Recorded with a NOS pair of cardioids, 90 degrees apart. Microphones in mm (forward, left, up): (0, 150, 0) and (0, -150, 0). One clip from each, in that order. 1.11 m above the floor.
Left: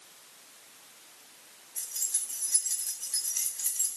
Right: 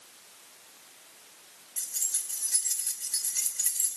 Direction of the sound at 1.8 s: 15° right.